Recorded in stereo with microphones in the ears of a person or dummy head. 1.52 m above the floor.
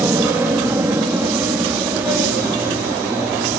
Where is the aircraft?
15° right (ahead or behind).